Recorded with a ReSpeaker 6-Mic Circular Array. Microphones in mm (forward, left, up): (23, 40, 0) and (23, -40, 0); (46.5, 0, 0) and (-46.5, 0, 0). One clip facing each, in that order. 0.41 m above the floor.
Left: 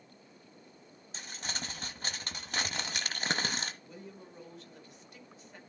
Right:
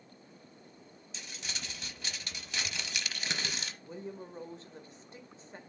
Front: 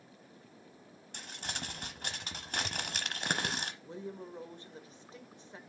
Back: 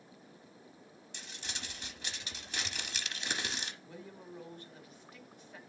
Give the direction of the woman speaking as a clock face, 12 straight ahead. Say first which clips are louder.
Right 6 dB, front 6 dB; 2 o'clock.